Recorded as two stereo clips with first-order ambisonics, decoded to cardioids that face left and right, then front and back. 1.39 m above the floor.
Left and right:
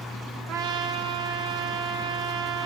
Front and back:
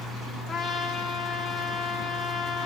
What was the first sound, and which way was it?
A trumpet, 85° right.